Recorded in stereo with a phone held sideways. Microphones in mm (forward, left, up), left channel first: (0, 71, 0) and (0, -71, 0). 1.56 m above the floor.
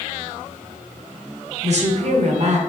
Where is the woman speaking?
50° right (ahead or behind), 0.6 m.